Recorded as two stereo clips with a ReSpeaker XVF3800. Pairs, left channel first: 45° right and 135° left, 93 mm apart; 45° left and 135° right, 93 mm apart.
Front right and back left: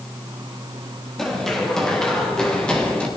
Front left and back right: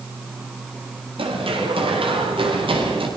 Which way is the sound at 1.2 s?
130° right.